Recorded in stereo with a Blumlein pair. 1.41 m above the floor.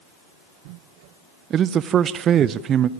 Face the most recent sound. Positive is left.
turn(degrees=-25)